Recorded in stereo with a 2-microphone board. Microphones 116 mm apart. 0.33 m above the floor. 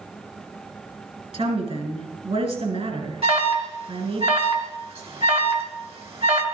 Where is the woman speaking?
60° right (ahead or behind), 3 m.